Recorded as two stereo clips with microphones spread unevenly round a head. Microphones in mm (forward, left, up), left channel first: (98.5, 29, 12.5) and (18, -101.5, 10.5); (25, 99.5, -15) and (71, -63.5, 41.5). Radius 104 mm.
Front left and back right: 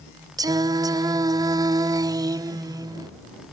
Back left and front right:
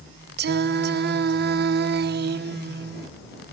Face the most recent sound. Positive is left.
turn(degrees=-55)